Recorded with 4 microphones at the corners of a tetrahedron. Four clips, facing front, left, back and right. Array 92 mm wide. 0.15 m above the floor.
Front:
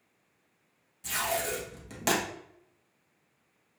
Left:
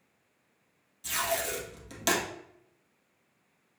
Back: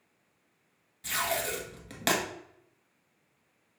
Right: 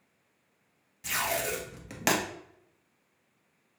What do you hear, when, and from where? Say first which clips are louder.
1.0 s tape being pulled: right 1 dB, even; 115° right, 1.1 m